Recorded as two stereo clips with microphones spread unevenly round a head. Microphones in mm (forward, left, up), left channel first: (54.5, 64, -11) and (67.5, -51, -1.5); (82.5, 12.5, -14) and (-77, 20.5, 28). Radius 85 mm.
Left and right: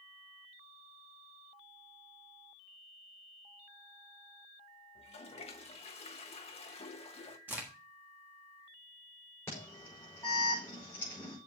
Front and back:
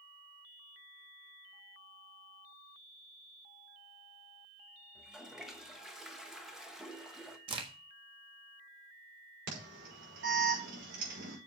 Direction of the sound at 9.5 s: 175° left.